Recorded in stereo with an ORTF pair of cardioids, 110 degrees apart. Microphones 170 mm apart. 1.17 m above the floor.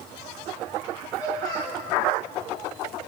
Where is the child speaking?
25° left, 2.5 m.